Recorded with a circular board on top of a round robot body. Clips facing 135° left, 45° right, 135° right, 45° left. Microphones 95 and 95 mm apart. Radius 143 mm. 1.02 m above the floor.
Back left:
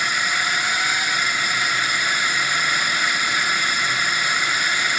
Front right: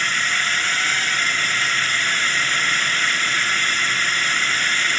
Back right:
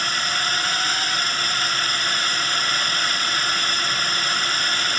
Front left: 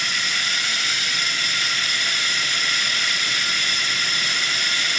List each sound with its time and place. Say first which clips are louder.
0.0 s a drone: even, back right 3 dB; 155° right